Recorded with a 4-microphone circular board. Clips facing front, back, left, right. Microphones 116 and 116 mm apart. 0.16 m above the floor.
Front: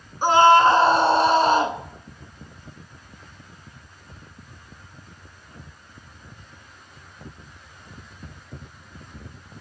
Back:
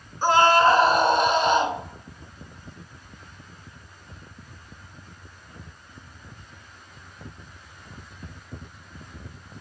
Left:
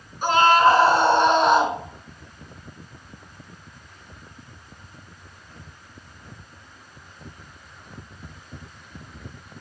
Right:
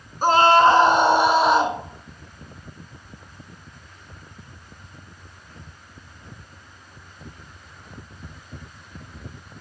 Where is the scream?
65° right, 1.4 m; by 1.8 s 10° left, 1.4 m.